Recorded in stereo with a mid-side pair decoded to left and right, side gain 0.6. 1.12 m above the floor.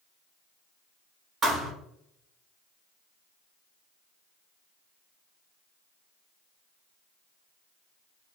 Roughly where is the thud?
Ahead right.